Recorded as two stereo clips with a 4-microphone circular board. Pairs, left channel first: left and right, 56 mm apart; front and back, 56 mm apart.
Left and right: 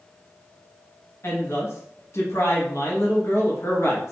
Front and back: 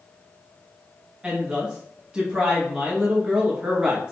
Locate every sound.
1.2 s a woman speaking: 110° left, 1.1 m